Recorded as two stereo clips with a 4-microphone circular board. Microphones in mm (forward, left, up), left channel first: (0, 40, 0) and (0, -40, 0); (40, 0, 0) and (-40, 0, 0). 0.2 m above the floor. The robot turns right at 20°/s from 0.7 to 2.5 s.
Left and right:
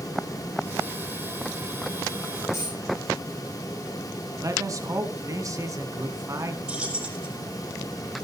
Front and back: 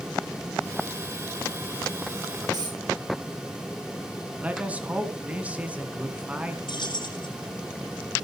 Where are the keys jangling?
15° right, 5.5 m.